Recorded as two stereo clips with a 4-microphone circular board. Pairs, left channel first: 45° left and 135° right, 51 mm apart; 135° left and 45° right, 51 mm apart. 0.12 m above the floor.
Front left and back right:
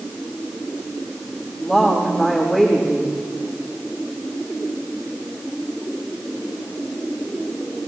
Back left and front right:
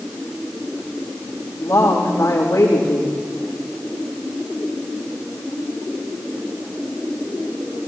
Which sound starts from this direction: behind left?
A woman speaking, at 1.6 s.